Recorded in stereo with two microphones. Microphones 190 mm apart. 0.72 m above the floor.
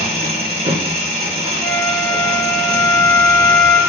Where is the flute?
15° left (ahead or behind), 0.5 m.